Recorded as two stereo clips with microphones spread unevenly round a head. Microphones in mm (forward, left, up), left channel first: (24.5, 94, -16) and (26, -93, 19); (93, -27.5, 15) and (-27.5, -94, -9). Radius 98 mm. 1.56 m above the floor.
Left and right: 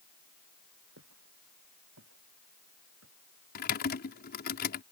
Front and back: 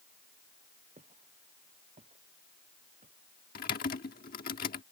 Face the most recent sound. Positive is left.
turn(degrees=50)